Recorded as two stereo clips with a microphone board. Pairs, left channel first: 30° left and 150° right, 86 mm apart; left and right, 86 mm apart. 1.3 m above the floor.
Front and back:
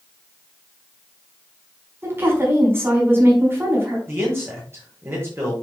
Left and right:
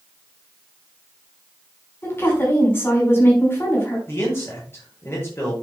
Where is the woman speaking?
150° left, 5 m.